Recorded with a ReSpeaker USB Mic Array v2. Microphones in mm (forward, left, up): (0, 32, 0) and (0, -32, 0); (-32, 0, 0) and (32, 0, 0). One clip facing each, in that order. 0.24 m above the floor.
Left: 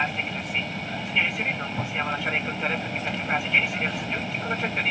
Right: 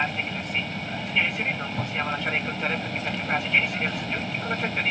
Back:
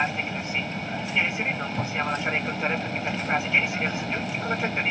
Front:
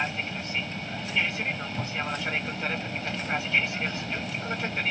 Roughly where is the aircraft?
Behind.